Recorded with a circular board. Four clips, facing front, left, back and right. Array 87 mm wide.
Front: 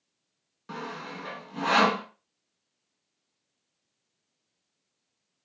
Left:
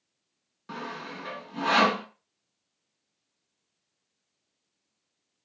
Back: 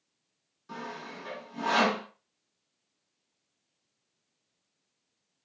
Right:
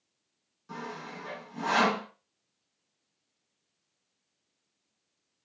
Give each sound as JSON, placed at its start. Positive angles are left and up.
{"t": 0.7, "sound": "sawing", "azimuth_deg": 50, "distance_m": 0.6}